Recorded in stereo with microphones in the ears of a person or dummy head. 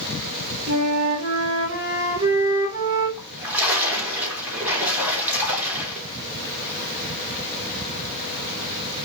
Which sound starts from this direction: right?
A flute, at 0.7 s.